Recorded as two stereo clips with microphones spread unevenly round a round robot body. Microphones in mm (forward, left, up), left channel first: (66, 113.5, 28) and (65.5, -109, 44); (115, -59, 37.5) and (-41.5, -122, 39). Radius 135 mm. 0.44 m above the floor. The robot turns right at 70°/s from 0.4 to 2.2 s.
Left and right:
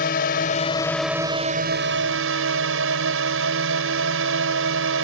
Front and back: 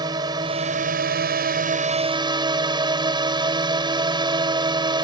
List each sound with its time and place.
0.0 s a drone: 135° left; by 5.0 s 100° right